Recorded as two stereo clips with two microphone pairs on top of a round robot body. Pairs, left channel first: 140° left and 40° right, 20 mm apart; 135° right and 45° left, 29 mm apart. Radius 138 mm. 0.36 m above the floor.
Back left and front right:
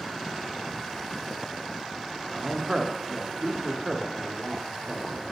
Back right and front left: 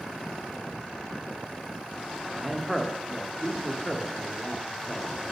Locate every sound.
2.4 s a man speaking: 40° right, 1.4 m